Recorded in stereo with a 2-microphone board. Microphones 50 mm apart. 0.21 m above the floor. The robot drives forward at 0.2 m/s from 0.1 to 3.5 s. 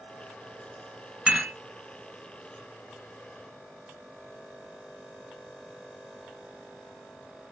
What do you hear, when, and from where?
1.3 s dishes clattering: 15° right (ahead or behind), 1.5 m